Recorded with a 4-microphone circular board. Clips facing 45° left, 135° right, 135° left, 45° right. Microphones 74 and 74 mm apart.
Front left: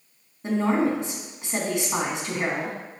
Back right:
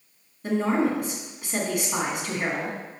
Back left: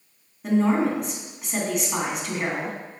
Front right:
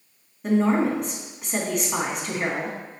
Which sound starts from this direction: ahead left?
A woman speaking, at 0.4 s.